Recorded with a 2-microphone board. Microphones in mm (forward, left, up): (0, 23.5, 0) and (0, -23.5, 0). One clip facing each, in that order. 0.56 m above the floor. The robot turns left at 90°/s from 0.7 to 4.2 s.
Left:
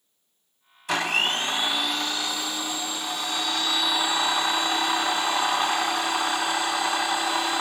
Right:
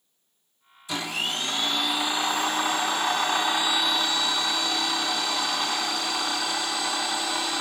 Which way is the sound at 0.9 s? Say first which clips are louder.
Left 5 dB; 90° left.